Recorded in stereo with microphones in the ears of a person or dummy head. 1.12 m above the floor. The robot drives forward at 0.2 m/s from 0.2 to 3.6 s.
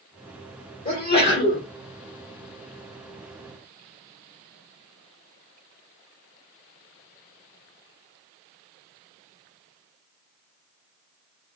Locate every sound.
0.8 s a sneeze: 35° left (ahead or behind), 1.1 m; by 1.7 s 30° left (ahead or behind), 1.2 m